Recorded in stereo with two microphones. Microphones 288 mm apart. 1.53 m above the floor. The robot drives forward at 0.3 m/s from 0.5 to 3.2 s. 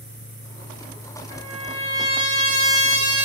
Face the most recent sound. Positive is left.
turn(degrees=-60)  # may be behind; listen again after turning